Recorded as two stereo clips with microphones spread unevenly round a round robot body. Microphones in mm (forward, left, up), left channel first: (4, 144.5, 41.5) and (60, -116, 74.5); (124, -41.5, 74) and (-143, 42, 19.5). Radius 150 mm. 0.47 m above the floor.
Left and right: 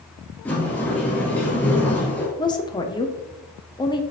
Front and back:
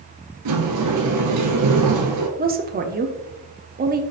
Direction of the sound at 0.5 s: 170° right.